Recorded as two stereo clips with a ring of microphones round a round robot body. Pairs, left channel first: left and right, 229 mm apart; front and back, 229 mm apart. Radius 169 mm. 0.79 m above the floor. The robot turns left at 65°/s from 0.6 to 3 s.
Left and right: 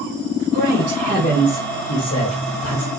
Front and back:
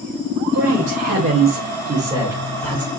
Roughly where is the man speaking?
Behind right.